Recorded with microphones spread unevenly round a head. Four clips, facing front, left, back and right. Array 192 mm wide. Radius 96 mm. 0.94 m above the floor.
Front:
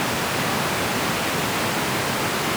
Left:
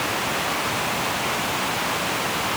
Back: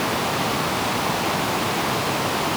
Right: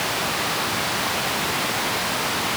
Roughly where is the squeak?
No squeak in this recording.